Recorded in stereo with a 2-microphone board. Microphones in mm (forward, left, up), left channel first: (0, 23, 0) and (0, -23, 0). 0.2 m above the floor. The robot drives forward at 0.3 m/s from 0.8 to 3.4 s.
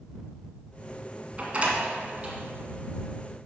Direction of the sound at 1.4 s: 30° right (ahead or behind).